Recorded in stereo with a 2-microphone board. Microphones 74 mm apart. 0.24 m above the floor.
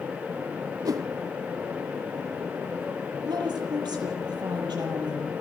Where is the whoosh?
60° right (ahead or behind), 0.7 m.